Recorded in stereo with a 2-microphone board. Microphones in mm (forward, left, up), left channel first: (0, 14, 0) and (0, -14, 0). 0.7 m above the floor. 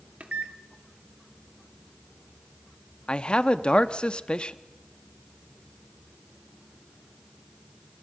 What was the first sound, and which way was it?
A microwave, 60° right (ahead or behind).